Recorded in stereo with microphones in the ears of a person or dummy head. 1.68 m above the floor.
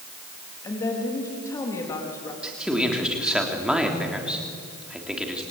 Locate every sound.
0.6 s a woman speaking: 20° left (ahead or behind), 3.5 m
2.4 s a man speaking: 5° right (ahead or behind), 3 m